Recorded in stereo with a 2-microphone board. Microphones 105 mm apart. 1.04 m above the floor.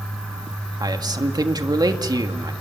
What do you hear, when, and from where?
0.8 s a man speaking: 40° right (ahead or behind), 1.7 m